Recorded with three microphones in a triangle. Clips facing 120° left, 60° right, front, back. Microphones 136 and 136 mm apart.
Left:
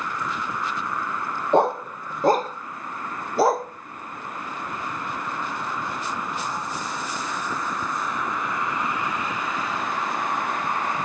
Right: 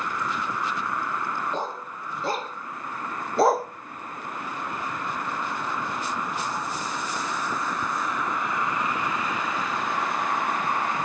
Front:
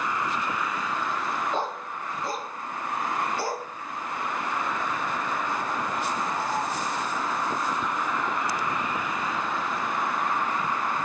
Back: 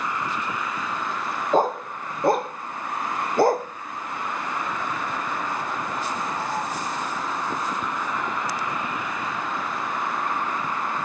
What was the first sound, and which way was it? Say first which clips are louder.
A dog barking: left 12 dB, back 9 dB; 135° left.